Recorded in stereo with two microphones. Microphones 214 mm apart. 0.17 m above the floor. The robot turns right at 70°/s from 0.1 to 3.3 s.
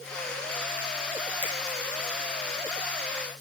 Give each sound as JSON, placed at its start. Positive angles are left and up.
{"t": 1.4, "sound": "a finger snap", "side_deg": -30, "distance_m": 4.5}